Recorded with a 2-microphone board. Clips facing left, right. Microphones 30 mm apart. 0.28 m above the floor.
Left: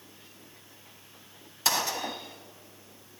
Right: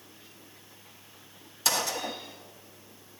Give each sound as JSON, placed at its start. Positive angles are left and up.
{"t": 1.6, "sound": "a gunshot", "side_deg": 10, "distance_m": 1.3}